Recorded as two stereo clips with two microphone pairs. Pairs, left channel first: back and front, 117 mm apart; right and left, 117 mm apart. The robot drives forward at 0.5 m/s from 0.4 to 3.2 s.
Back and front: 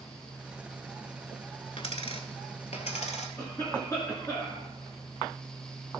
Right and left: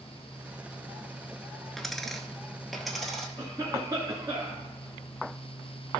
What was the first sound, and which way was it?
A dropped coin, 175° right.